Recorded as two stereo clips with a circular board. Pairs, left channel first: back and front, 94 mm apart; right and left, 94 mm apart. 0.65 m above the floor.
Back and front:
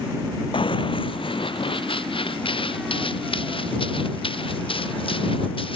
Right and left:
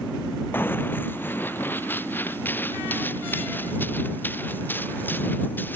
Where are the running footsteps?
160° right.